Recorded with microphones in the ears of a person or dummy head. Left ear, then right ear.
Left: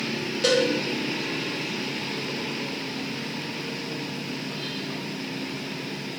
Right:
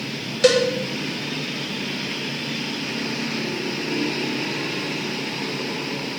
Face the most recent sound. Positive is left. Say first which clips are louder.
# right 5 dB
turn(degrees=-30)  # may be behind; listen again after turning